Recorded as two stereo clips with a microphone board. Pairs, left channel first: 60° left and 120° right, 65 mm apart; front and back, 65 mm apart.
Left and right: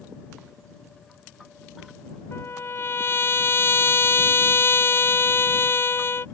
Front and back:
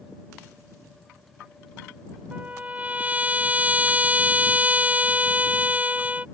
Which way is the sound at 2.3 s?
110° left.